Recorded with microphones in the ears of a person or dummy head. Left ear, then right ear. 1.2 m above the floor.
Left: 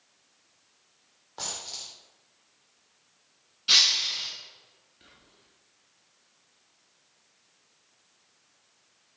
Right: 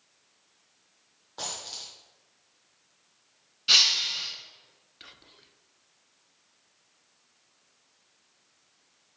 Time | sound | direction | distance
1.4 | a dropped coin | centre (ahead or behind) | 0.9 m
3.7 | breaking glass | 5° right (ahead or behind) | 3 m
5.0 | whispering | 50° right (ahead or behind) | 0.8 m